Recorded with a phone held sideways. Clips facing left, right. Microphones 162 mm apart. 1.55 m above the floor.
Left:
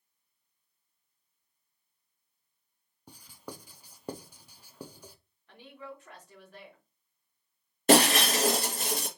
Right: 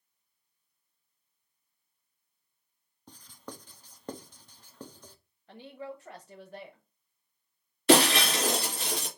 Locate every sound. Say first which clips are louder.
3.1 s writing: left 1 dB; 10° left (ahead or behind), 0.5 m
5.5 s a woman speaking: right 4 dB; 40° right (ahead or behind), 1.0 m
7.9 s breaking glass: even; 45° left (ahead or behind), 2.5 m